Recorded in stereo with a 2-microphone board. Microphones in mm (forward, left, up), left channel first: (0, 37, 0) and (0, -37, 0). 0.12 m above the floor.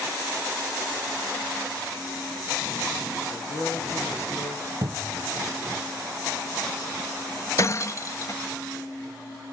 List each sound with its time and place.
3.3 s a man speaking: 35° left (ahead or behind), 6 m
4.8 s a cupboard door: 65° right (ahead or behind), 0.9 m
7.6 s breaking glass: 45° left (ahead or behind), 1.0 m